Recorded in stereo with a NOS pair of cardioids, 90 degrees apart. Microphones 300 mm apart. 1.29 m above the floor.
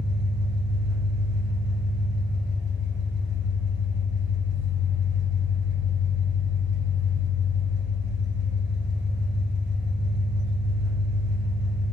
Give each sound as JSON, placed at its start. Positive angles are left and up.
{"t": 0.0, "sound": "an engine running", "azimuth_deg": -35, "distance_m": 1.6}